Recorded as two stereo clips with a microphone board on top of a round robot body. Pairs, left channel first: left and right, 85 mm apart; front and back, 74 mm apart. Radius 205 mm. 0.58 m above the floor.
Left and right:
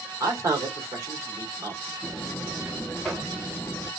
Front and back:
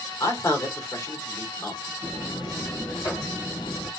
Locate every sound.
0.2 s a man speaking: 40° right, 2.0 m
2.0 s a buzzer: 5° left, 2.0 m